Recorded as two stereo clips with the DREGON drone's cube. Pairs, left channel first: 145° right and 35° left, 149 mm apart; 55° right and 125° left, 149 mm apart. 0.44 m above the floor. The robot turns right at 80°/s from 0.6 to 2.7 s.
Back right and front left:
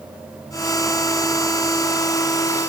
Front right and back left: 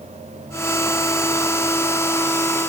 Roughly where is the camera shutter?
I don't hear a camera shutter.